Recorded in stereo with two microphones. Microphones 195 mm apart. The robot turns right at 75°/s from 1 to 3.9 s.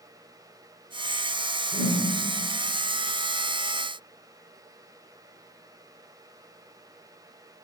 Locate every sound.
1.7 s a whoosh: 30° left (ahead or behind), 6 m; by 2.0 s 5° left (ahead or behind), 6 m